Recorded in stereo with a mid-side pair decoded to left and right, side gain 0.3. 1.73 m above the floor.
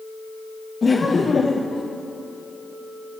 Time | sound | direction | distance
0.8 | laughter | 50° left | 1.1 m